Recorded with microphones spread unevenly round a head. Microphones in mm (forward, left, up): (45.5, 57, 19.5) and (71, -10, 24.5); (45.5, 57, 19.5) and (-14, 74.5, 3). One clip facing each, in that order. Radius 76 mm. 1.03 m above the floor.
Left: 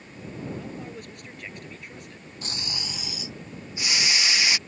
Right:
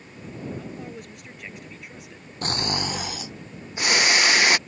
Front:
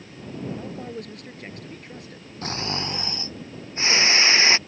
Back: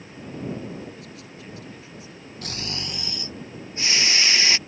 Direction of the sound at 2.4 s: 90° right.